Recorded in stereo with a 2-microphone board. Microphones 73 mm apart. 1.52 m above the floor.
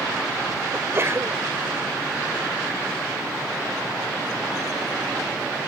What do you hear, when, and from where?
0.7 s a sneeze: 35° right (ahead or behind)